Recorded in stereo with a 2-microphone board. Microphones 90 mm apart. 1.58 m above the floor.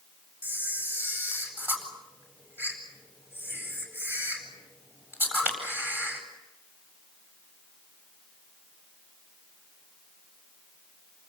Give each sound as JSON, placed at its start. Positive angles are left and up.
{"t": 0.4, "sound": "a camera shutter", "side_deg": -20, "distance_m": 8.0}